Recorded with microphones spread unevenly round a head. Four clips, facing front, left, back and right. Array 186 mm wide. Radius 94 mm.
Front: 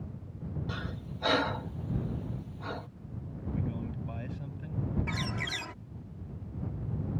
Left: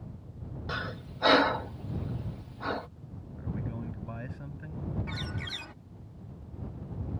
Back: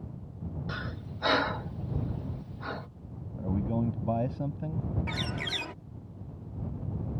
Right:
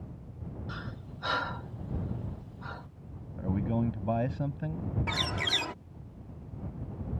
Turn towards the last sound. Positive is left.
turn(degrees=-110)